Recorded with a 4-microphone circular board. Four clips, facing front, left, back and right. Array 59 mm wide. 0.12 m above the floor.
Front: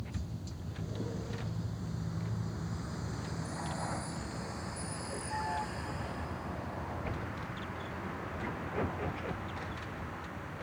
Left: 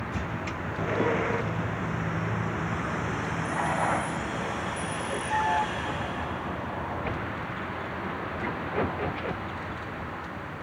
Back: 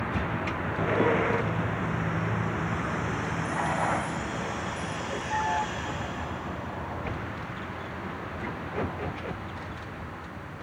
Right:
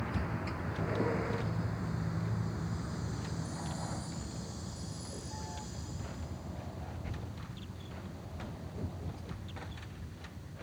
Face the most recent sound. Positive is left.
turn(degrees=95)